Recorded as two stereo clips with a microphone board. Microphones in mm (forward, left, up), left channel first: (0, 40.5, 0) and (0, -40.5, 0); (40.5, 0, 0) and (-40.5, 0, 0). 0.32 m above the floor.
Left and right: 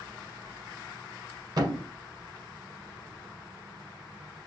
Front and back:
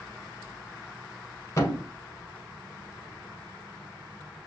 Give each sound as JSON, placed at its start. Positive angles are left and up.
{"t": 1.6, "sound": "a thud", "azimuth_deg": -55, "distance_m": 0.9}